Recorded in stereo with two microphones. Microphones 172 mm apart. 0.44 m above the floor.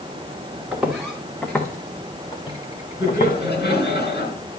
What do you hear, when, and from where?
0.7 s footsteps: 5° right (ahead or behind), 2 m; by 3.3 s 50° left (ahead or behind), 1.7 m
3.0 s laughter: 70° left (ahead or behind), 5.5 m